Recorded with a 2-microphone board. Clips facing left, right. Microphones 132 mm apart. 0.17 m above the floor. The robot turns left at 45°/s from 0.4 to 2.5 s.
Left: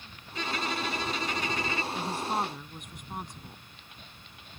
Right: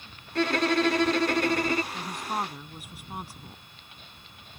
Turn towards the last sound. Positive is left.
turn(degrees=-5)  # may be behind; listen again after turning